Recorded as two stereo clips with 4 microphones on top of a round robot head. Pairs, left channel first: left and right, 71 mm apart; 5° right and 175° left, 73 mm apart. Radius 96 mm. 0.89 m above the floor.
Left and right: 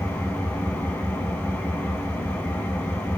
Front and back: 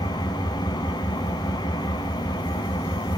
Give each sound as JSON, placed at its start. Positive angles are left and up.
{"t": 0.0, "sound": "an engine running", "azimuth_deg": 20, "distance_m": 3.5}